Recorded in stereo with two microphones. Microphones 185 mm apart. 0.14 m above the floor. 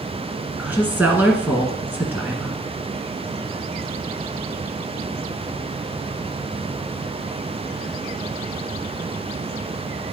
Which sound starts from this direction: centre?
A woman speaking, at 0.6 s.